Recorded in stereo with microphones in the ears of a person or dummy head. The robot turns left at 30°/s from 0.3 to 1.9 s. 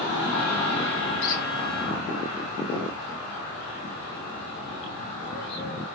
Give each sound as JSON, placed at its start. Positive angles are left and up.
{"t": 1.2, "sound": "a squeak", "side_deg": 70, "distance_m": 3.0}